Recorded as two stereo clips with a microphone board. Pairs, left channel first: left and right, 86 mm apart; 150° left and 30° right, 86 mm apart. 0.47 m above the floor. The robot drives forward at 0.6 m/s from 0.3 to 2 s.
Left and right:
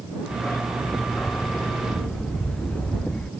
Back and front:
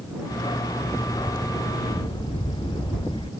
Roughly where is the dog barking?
Behind.